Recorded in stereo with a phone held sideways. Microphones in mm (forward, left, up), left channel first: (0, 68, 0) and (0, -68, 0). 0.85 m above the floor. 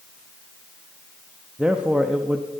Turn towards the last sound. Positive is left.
turn(degrees=-10)  # may be behind; listen again after turning